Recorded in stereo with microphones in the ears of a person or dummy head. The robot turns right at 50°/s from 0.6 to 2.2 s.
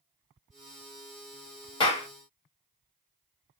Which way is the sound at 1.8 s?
25° left (ahead or behind).